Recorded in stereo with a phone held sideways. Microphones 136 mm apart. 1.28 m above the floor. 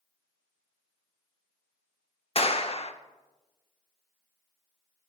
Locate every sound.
2.4 s a clap: 50° left (ahead or behind), 0.8 m